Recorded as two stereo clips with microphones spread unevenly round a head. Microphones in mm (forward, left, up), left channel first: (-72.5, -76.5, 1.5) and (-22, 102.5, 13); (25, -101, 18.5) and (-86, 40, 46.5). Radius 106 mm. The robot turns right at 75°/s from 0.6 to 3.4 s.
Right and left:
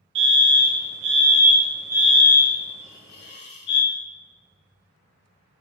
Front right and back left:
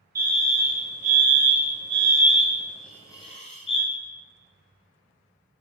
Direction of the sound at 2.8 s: 150° right.